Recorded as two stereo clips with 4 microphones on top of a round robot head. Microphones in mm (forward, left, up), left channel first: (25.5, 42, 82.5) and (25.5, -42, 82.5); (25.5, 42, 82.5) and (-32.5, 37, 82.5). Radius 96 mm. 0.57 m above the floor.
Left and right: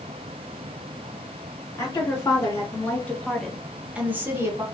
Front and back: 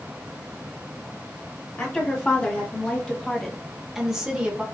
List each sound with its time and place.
1.8 s a woman speaking: 60° left, 1.5 m; by 4.6 s 110° right, 1.2 m